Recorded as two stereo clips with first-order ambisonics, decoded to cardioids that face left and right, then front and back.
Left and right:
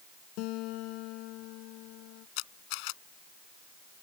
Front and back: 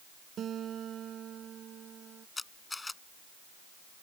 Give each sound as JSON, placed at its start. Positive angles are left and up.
{"t": 0.4, "sound": "a guitar", "azimuth_deg": 120}
{"t": 2.4, "sound": "a camera shutter", "azimuth_deg": 80}